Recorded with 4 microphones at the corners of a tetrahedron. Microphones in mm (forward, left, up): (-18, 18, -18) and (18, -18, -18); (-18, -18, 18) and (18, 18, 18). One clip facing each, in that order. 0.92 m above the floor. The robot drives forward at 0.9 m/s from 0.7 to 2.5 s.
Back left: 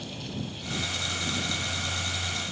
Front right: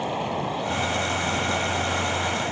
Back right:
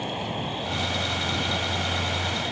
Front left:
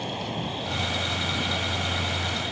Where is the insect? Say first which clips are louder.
Front right 11 dB, back right 1 dB; 55° right; by 2.5 s 60° right.